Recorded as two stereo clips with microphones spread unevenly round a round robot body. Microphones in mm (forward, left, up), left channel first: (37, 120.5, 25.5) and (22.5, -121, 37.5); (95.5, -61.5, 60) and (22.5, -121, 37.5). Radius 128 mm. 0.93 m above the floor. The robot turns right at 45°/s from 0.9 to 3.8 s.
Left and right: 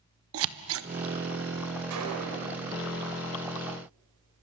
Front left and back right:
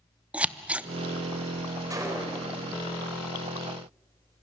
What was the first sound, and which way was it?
Scissors, 60° right.